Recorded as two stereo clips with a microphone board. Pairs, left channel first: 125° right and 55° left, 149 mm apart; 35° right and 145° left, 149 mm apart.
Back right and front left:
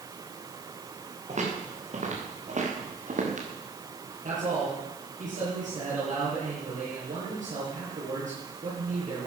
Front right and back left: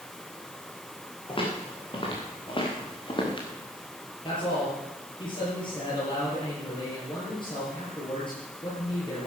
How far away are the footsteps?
About 6.5 m.